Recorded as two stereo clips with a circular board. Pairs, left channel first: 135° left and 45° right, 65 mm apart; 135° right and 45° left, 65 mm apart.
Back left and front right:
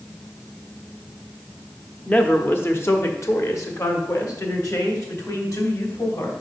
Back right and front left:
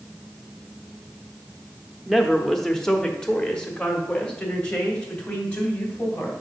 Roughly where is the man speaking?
Behind left.